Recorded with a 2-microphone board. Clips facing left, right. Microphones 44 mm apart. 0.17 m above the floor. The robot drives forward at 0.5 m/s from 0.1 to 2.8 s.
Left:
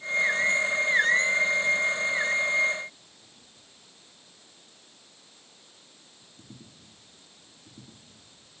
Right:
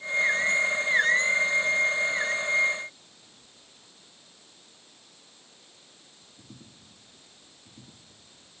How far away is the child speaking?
No child speaking in this recording.